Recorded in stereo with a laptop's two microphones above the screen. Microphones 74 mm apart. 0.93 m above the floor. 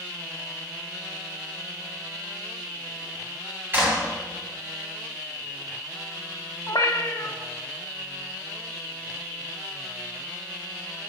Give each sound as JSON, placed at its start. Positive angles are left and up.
{"t": 3.7, "sound": "a clap", "side_deg": -30, "distance_m": 2.5}
{"t": 6.7, "sound": "a cat meowing", "side_deg": 55, "distance_m": 1.0}